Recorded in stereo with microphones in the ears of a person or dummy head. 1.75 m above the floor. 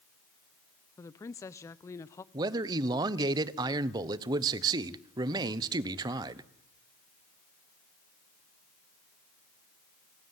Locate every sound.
1.0 s a woman speaking: 15° left (ahead or behind), 0.7 m
2.3 s a man speaking: 25° right (ahead or behind), 1.1 m